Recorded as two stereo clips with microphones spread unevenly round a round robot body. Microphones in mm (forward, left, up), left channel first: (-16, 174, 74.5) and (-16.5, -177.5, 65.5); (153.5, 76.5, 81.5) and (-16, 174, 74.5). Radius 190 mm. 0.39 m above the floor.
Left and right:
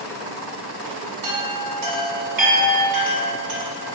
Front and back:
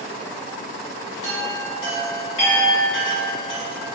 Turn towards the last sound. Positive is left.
turn(degrees=-55)